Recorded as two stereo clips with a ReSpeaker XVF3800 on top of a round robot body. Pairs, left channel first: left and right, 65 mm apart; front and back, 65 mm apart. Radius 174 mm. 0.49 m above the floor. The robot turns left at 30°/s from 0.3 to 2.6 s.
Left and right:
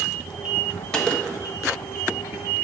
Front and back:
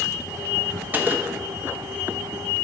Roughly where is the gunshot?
Behind left.